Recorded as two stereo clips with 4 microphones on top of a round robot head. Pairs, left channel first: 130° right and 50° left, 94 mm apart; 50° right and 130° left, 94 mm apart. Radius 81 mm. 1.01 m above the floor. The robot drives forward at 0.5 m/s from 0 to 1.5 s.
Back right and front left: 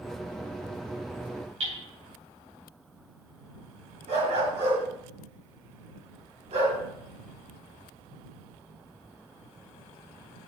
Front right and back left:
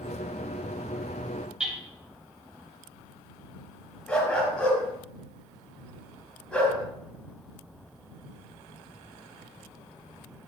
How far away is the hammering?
About 3 m.